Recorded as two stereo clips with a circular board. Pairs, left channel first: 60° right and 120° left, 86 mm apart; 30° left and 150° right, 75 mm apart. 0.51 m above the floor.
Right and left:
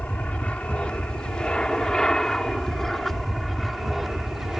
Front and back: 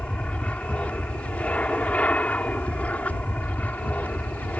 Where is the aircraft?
15° right; by 4.6 s 40° left.